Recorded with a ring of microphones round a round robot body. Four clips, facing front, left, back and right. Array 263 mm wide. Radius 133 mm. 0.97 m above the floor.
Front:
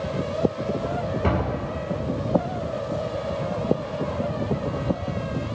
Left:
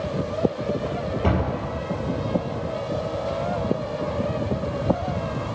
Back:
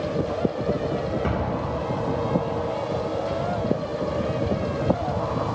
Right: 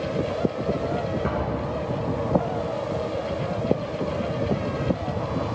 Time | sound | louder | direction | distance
1.2 | a door slam | left 2 dB, front 1 dB | 55° left | 4.5 m